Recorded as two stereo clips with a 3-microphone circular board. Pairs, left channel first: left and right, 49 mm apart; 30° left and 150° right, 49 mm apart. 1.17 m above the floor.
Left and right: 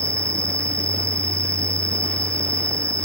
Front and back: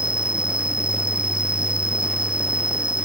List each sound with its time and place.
0.0 s an insect: 80° right